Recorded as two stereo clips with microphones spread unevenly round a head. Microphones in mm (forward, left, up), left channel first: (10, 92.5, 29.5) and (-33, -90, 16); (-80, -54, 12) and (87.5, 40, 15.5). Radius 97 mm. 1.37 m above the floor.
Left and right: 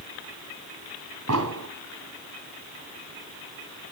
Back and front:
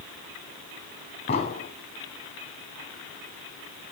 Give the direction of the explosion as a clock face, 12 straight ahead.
3 o'clock.